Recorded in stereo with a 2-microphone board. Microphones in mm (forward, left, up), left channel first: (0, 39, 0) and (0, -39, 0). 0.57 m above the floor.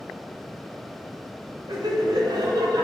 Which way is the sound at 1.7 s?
70° right (ahead or behind).